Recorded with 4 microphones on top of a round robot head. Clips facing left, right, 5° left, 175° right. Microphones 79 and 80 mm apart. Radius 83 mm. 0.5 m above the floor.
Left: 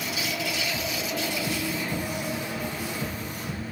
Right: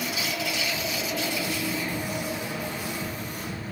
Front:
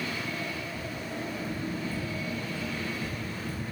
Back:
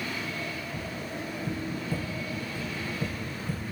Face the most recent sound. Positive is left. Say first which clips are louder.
# even, even
turn(degrees=155)